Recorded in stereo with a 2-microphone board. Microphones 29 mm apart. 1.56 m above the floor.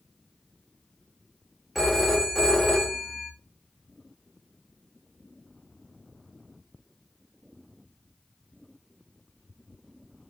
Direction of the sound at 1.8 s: Centre (ahead or behind).